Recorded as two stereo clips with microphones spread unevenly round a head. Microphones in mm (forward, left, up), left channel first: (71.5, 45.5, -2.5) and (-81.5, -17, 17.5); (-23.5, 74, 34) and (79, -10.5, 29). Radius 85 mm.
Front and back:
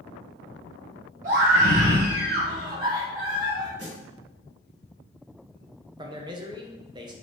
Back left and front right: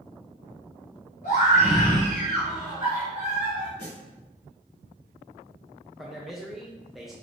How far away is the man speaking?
About 0.6 m.